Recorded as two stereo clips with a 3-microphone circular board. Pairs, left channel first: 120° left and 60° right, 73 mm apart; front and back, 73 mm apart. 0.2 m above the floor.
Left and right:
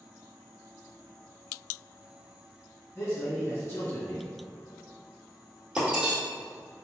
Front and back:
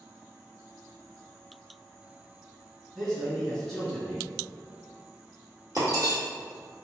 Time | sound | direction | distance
3.0 | a man speaking | 70° left | 1.7 m
5.8 | breaking glass | 135° right | 1.6 m